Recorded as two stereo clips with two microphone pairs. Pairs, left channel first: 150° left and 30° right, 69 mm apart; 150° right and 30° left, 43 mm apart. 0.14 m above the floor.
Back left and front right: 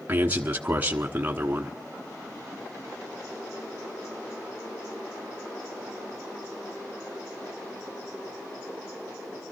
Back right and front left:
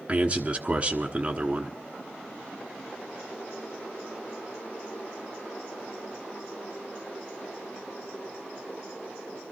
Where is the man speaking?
5° left, 1.2 m.